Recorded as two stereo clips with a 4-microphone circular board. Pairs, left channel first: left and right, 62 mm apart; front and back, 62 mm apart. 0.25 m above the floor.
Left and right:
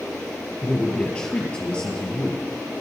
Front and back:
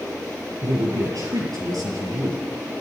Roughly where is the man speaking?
Behind.